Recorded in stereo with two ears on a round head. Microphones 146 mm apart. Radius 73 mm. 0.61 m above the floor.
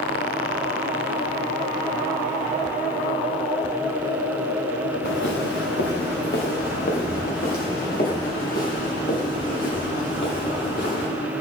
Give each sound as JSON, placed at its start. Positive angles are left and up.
{"t": 5.0, "sound": "footsteps", "side_deg": 70, "distance_m": 3.5}